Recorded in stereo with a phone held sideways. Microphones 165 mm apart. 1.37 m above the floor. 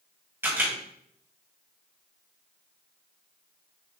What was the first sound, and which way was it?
A camera shutter, 15° right (ahead or behind).